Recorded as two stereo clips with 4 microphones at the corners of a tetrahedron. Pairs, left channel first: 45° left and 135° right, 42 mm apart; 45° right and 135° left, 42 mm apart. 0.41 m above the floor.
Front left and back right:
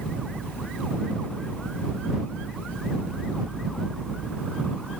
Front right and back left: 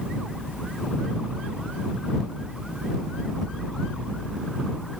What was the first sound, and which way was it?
Only background noise.